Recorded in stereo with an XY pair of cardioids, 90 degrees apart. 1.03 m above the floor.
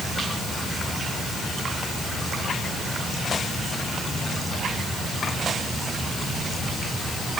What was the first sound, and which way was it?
Only background noise.